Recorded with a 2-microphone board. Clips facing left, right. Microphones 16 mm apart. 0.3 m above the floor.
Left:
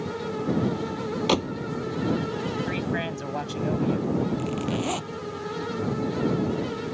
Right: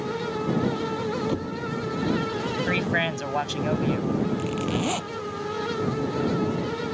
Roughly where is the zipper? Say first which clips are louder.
Right 1 dB; centre.